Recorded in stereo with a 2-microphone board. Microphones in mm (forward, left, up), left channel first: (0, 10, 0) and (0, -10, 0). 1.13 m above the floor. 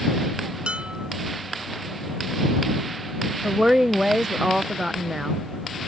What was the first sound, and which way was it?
Dishes clattering, 70° right (ahead or behind).